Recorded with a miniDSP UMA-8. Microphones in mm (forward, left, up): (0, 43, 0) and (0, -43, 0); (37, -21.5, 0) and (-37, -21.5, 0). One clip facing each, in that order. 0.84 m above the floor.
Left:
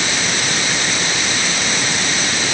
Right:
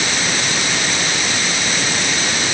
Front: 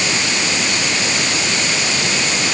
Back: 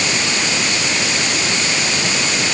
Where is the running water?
I don't hear running water.